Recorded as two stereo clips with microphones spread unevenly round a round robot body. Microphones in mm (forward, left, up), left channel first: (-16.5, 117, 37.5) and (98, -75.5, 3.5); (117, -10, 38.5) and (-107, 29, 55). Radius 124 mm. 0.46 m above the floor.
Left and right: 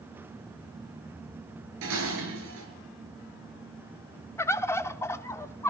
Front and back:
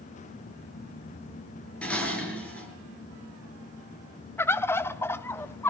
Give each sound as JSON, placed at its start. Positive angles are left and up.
{"t": 1.8, "sound": "dishes clattering", "azimuth_deg": -95, "distance_m": 5.0}
{"t": 4.4, "sound": "a bird", "azimuth_deg": 40, "distance_m": 0.9}